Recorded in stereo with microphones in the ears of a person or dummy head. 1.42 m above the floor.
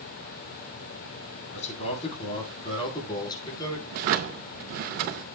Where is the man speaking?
35° left (ahead or behind), 3.5 m; by 3.8 s 15° left (ahead or behind), 4.5 m.